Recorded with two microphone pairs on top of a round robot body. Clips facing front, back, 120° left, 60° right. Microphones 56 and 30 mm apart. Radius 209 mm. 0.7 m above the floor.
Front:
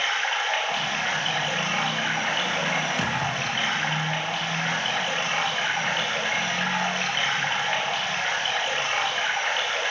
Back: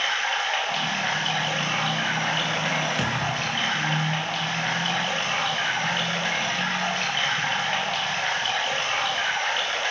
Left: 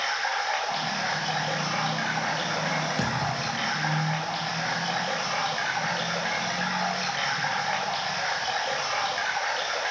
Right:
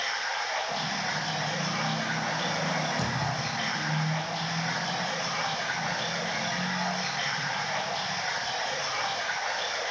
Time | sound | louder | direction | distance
0.0 | running water | even, left 3 dB | 85° left | 4.5 m
3.0 | a thud | even, left 2 dB | 90° left | 3.5 m